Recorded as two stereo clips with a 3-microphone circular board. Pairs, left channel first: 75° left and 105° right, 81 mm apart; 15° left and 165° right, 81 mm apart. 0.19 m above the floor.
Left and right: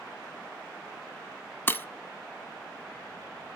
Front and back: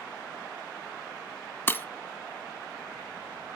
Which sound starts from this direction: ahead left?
Breaking glass, at 1.7 s.